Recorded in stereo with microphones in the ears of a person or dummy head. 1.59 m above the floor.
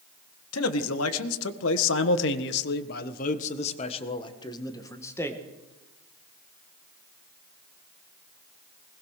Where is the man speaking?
80° left, 1.8 m; by 5.4 s 15° left (ahead or behind), 1.9 m.